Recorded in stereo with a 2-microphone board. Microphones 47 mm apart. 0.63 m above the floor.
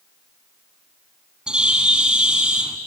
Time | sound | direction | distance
1.5 | a bird | 20° right (ahead or behind) | 1.2 m